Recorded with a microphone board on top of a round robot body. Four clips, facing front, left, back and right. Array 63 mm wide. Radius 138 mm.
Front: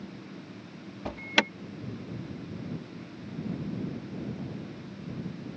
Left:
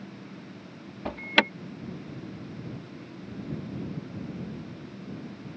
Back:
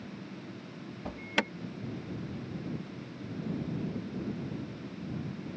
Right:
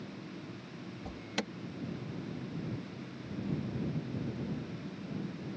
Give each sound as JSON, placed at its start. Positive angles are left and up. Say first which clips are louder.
{"t": 1.1, "sound": "an alarm", "louder": "left 15 dB, front 5 dB", "azimuth_deg": 75}